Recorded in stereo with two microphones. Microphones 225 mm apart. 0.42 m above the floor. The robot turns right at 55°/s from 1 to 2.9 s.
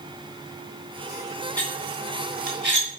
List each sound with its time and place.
1.6 s cutlery clinking: 5° left (ahead or behind), 2 m; by 3.0 s 65° right (ahead or behind), 2 m